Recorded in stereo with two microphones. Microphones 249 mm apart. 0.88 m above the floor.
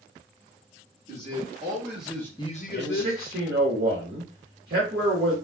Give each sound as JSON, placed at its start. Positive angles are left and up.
{"t": 1.1, "sound": "a man speaking", "side_deg": -25, "distance_m": 1.4}
{"t": 2.7, "sound": "a man speaking", "side_deg": -45, "distance_m": 1.3}